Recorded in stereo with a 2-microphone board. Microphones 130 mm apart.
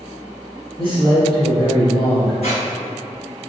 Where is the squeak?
55° left (ahead or behind), 1.5 m.